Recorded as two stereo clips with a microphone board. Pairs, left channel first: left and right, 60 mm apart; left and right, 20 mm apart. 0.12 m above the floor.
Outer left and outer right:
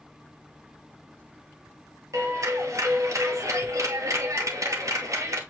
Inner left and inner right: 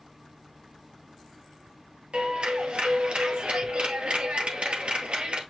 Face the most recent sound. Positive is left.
turn(degrees=-60)  # may be behind; listen again after turning